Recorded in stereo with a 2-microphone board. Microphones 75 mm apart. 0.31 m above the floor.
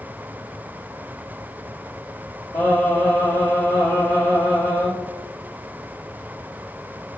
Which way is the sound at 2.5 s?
20° left (ahead or behind).